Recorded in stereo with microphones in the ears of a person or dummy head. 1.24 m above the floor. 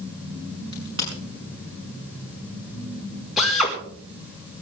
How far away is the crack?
About 6 m.